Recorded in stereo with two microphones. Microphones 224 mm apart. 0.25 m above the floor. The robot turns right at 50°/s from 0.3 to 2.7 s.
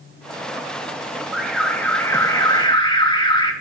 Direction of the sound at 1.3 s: 5° right (ahead or behind).